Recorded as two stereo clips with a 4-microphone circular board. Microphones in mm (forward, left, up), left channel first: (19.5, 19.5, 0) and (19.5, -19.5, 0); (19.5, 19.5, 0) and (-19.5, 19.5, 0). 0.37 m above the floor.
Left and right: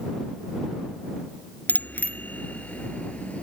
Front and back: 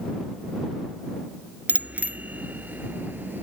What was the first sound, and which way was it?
A bicycle bell, 125° left.